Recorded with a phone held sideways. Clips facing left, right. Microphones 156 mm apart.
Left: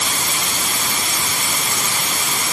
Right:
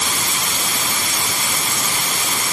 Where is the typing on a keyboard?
No typing on a keyboard in this recording.